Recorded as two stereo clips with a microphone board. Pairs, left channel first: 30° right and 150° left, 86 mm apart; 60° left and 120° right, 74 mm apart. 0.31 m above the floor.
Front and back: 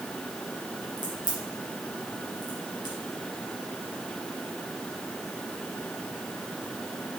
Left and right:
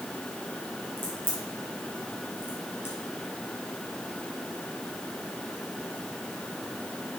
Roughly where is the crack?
Ahead.